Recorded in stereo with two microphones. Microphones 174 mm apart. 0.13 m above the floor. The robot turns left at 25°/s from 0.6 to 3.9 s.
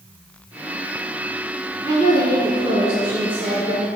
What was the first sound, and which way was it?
A woman speaking, 45° right.